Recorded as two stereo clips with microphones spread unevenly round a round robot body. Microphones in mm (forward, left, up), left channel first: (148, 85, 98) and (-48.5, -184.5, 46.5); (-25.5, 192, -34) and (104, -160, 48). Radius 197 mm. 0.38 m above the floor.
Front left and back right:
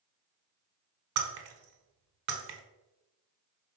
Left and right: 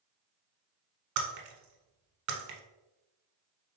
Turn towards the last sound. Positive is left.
turn(degrees=-100)